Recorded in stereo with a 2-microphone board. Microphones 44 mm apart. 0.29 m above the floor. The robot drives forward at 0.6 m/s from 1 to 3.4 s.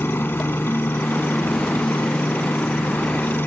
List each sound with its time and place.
0.0 s a helicopter: 55° left (ahead or behind); by 3.5 s 50° left (ahead or behind)